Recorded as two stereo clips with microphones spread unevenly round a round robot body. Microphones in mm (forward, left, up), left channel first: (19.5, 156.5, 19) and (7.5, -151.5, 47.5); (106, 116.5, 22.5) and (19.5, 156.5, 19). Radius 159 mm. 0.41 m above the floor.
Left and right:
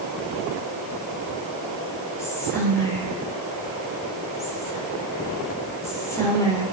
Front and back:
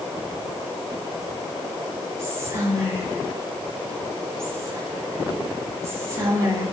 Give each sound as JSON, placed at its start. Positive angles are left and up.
{"t": 2.2, "sound": "whispering", "azimuth_deg": 150, "distance_m": 1.1}